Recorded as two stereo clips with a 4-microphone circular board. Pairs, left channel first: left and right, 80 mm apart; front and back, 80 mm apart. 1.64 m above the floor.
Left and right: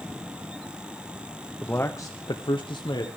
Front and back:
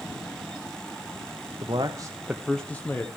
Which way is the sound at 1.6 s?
160° left.